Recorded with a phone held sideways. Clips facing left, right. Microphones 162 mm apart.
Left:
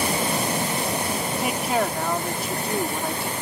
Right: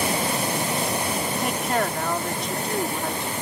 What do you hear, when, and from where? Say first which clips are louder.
1.4 s a woman speaking: left 2 dB; 5° left (ahead or behind)